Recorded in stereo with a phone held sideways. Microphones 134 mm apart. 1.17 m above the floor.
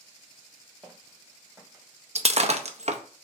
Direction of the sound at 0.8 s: 5° left (ahead or behind).